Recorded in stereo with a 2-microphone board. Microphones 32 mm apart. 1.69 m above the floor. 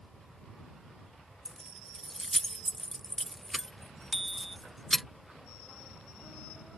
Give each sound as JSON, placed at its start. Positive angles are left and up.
{"t": 1.4, "sound": "keys jangling", "side_deg": 10}
{"t": 4.1, "sound": "a bicycle bell", "side_deg": 0}